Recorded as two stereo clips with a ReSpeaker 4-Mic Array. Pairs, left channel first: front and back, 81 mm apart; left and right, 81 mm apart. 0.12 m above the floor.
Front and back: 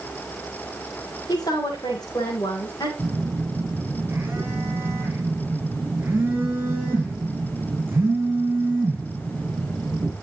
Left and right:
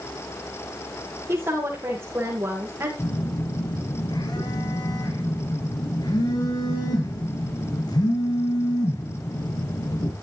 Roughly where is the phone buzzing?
Behind left.